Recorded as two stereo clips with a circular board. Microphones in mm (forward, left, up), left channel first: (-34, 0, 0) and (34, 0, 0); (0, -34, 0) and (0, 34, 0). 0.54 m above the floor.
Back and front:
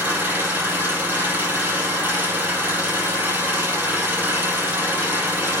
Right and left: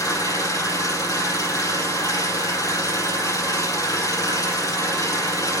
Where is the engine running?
60° right, 4.5 m.